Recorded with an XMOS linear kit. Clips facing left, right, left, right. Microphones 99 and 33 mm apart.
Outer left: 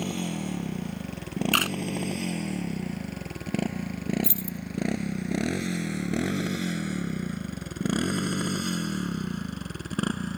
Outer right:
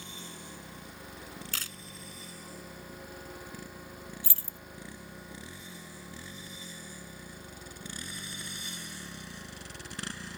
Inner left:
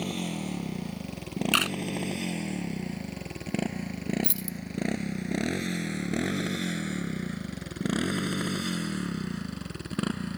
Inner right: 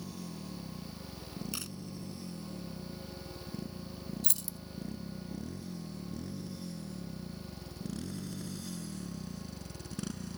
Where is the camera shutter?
70° left (ahead or behind).